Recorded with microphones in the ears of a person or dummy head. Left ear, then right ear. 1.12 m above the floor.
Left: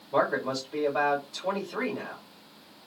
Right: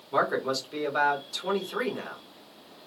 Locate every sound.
0.1 s a man speaking: 45° right (ahead or behind), 1.2 m